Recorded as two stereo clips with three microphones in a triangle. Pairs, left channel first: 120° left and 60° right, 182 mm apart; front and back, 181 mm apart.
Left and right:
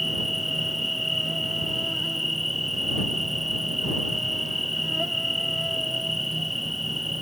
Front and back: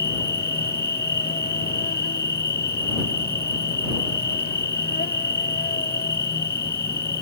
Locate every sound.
0.0 s an insect: 30° left